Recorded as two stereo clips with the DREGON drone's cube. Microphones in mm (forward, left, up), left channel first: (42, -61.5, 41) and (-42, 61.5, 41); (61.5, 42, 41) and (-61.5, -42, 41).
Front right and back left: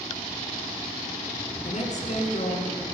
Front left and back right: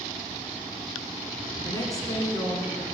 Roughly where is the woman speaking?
Ahead right.